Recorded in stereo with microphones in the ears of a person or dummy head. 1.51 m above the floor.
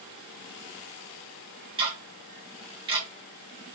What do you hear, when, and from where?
1.8 s ticking: 25° right (ahead or behind), 0.8 m